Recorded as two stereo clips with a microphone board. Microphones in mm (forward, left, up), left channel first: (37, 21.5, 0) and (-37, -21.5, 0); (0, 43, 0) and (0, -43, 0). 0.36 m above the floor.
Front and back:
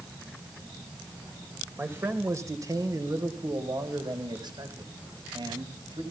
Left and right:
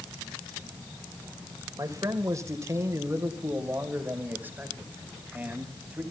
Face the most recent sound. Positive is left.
turn(degrees=-165)